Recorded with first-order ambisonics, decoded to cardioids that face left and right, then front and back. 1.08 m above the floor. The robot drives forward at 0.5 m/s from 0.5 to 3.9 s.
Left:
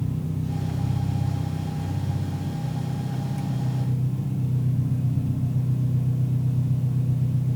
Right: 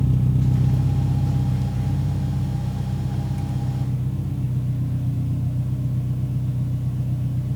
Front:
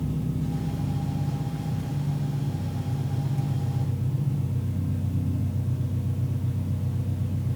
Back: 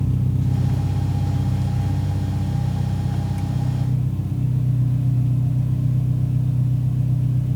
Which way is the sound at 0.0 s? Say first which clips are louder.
Right 6 dB, back 4 dB; 115° right.